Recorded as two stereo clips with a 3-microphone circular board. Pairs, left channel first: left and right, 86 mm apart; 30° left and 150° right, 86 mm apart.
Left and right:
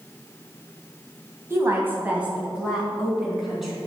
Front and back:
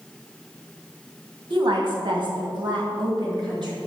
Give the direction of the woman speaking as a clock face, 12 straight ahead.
5 o'clock.